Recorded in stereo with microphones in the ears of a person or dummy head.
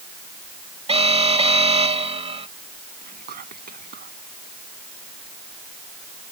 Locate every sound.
0.9 s an alarm: 30° right (ahead or behind)
3.0 s whispering: 50° right (ahead or behind)